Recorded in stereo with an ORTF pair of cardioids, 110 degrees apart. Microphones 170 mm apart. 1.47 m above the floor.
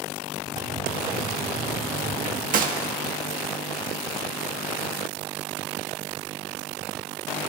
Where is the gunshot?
60° right, 1.7 m.